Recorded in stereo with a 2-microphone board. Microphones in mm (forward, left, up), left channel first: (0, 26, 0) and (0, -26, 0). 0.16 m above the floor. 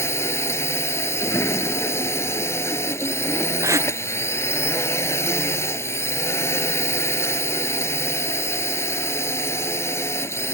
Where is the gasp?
85° right.